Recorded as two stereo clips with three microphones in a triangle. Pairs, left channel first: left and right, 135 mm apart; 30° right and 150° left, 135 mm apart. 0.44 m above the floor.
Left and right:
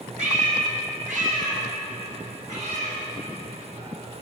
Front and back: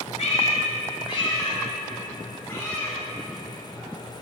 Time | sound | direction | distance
0.2 | a cat meowing | 65° right | 1.4 m